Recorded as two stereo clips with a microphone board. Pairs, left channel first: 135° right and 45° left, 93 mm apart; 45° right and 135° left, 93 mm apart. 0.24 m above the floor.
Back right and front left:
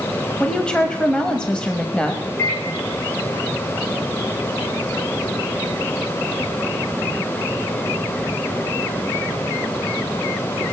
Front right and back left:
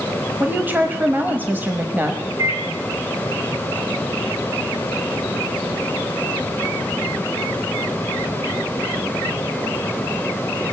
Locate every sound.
0.4 s a woman speaking: 160° left, 0.9 m
2.4 s a microwave: 170° left, 2 m